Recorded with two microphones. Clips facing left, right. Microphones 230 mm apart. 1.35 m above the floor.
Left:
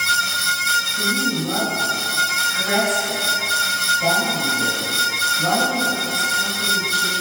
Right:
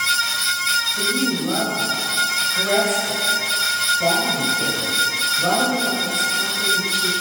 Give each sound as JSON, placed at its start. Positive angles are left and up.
{"t": 1.0, "sound": "a woman speaking", "side_deg": -45, "distance_m": 6.0}